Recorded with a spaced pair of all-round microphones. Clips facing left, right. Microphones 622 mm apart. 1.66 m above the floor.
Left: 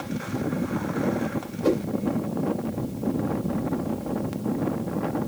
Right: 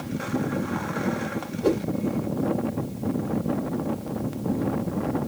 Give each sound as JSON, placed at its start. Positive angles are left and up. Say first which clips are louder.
{"t": 1.6, "sound": "a whoosh", "louder": "even", "side_deg": 20, "distance_m": 1.7}